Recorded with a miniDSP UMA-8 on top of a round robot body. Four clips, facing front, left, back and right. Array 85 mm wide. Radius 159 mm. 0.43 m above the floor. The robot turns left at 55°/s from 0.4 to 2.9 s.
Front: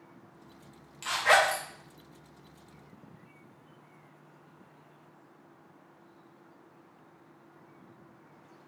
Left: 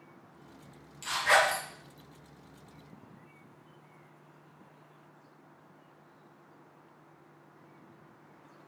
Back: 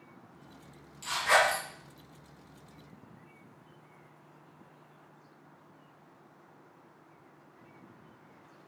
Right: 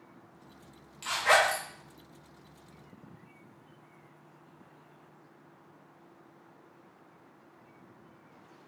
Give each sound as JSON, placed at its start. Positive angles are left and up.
{"t": 1.0, "sound": "a zipper", "azimuth_deg": -20, "distance_m": 1.2}